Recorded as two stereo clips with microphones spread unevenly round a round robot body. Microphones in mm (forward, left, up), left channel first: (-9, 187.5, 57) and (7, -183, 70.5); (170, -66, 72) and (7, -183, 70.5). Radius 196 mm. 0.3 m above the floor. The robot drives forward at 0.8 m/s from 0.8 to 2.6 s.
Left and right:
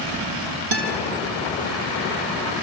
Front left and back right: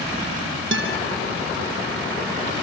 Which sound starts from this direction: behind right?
A guitar, at 0.7 s.